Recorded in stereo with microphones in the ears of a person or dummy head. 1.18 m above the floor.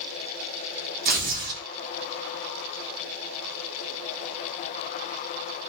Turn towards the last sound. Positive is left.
turn(degrees=-45)  # may be behind; listen again after turning